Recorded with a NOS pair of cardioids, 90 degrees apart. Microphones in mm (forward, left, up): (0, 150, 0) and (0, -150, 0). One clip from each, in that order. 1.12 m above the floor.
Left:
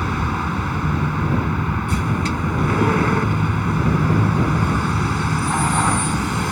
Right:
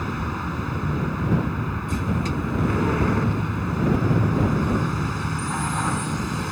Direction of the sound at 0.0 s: 50° left.